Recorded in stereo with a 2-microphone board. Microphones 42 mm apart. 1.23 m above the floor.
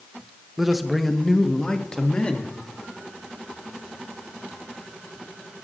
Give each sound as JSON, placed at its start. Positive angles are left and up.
{"t": 0.6, "sound": "a man speaking", "side_deg": -10, "distance_m": 0.9}